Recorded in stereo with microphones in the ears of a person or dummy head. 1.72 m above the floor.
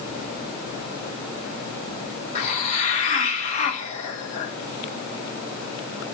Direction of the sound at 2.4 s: 40° left (ahead or behind).